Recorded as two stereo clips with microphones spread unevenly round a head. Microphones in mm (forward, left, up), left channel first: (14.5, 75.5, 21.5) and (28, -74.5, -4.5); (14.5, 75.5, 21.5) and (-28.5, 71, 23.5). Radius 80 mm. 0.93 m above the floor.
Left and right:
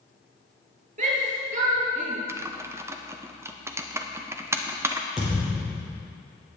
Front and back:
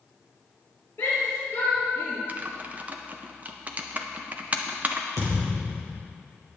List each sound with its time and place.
1.0 s a shout: 50° right, 4.5 m
2.3 s typing on a keyboard: 135° right, 0.6 m
5.2 s a thud: 175° right, 4.5 m